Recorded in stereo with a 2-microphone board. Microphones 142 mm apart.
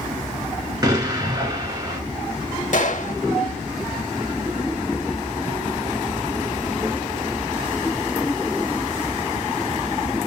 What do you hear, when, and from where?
0.8 s an explosion: 30° right (ahead or behind), 1.5 m
2.7 s a gunshot: 60° left (ahead or behind), 0.5 m